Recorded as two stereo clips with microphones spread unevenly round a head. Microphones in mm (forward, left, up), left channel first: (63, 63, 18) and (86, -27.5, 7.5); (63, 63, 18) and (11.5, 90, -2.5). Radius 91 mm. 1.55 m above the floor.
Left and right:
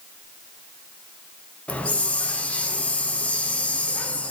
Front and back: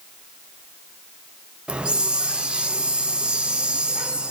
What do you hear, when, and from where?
1.7 s a hiss: 60° left, 0.7 m